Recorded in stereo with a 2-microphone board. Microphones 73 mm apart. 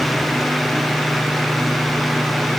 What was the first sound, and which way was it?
Only background noise.